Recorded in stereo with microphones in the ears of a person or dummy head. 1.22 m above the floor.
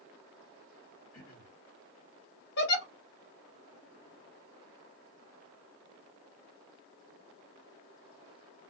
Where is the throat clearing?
70° left (ahead or behind), 1.3 m.